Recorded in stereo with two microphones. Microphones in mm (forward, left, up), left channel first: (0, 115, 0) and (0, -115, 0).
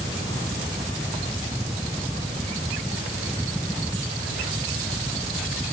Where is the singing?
I don't hear singing.